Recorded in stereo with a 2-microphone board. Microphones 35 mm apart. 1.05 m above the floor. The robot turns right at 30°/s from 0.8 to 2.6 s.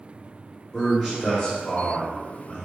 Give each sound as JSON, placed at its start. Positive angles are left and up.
{"t": 0.7, "sound": "a man speaking", "azimuth_deg": -5, "distance_m": 1.8}